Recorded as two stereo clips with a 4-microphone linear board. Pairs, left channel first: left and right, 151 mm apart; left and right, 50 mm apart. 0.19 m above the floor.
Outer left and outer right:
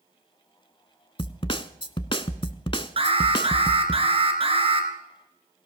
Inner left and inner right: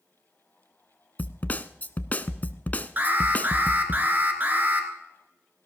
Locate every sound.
1.2 s a snare drum: 35° left (ahead or behind), 0.6 m
3.0 s an alarm: 40° right (ahead or behind), 1.9 m